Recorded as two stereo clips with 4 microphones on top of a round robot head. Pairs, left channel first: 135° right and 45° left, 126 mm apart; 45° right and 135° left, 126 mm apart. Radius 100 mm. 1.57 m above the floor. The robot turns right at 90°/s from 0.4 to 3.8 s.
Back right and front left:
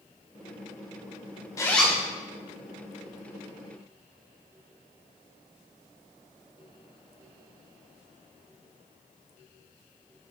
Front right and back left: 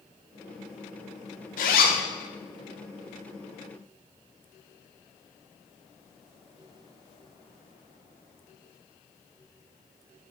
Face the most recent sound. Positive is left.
turn(degrees=130)